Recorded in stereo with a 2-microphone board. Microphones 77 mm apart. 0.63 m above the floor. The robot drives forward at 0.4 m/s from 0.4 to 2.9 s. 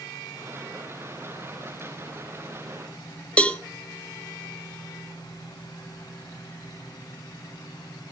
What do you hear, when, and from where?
3.4 s a cowbell: 15° left (ahead or behind), 1.1 m